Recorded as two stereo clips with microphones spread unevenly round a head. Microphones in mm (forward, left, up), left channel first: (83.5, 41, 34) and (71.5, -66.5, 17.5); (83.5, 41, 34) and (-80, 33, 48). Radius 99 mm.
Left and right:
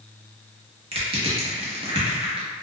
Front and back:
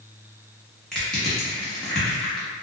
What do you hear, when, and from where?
0.9 s crushing: 80° right, 0.9 m